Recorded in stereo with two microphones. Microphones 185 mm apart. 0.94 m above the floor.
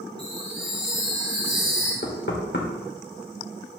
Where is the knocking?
75° left (ahead or behind), 2.5 m.